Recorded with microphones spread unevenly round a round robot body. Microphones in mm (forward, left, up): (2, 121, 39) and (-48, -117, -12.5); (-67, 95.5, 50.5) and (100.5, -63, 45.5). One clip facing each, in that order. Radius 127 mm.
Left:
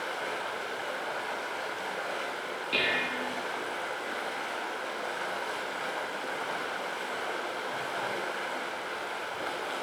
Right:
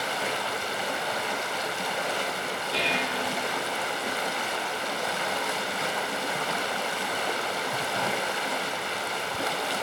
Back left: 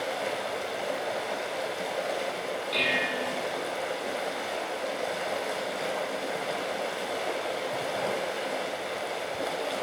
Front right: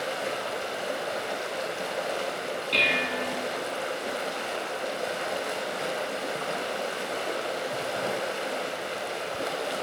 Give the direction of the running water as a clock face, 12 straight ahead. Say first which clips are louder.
Right 4 dB, even; 4 o'clock.